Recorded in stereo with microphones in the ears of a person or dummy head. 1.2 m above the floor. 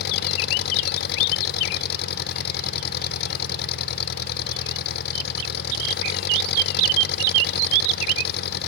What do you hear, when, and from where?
0.0 s an engine running: 60° left (ahead or behind)